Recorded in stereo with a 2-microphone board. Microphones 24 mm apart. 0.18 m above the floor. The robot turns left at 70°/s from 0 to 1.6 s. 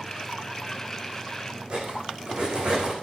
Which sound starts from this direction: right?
Cutlery clinking, at 1.7 s.